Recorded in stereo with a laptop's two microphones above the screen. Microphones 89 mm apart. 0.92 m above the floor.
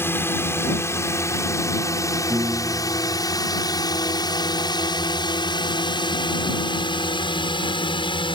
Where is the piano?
45° right (ahead or behind).